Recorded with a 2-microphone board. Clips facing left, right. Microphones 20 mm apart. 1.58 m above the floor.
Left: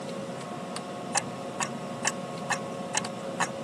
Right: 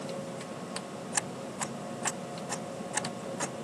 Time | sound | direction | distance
1.1 | ticking | 50° left (ahead or behind) | ?